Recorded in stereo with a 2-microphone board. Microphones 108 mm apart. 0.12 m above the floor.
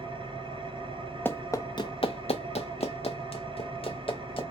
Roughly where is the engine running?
Right.